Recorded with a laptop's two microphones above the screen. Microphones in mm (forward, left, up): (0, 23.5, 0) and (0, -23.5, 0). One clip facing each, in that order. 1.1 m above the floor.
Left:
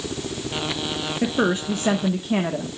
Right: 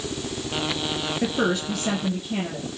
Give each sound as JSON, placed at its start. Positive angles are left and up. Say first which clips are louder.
{"t": 1.2, "sound": "a woman speaking", "louder": "left 3 dB", "side_deg": 15, "distance_m": 1.2}